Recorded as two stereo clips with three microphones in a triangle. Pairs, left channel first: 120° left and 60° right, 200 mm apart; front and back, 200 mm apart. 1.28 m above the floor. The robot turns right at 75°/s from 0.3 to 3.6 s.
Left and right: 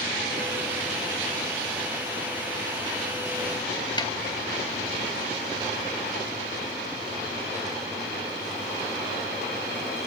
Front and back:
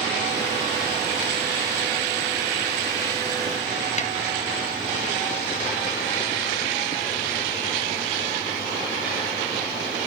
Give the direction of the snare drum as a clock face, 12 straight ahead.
10 o'clock.